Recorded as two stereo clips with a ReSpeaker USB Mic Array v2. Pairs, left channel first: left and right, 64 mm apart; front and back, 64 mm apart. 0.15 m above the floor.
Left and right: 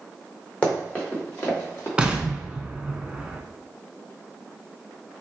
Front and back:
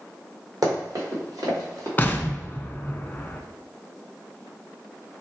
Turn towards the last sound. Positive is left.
turn(degrees=-30)